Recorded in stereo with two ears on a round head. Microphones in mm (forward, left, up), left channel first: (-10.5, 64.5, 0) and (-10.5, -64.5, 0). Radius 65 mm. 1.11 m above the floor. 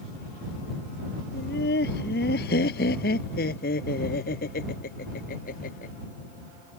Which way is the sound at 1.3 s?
85° left.